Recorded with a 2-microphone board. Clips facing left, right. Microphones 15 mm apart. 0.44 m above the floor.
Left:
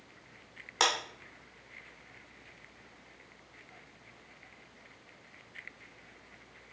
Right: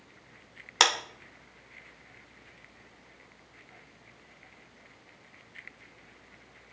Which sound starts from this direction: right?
A clap, at 0.8 s.